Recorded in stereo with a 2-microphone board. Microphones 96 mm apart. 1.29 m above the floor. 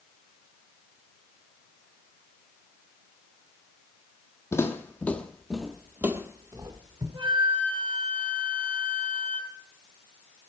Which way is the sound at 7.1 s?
80° right.